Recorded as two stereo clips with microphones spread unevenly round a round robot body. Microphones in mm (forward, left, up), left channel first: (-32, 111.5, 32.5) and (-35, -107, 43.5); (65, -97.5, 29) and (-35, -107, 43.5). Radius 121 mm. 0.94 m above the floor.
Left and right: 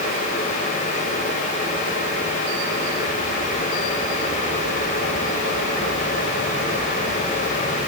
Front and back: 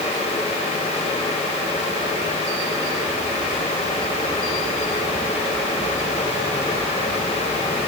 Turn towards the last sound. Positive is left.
No sound to turn to.